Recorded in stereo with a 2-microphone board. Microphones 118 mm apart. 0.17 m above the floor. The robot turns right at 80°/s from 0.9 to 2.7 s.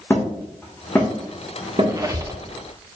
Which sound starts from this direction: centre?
Hammering, at 0.1 s.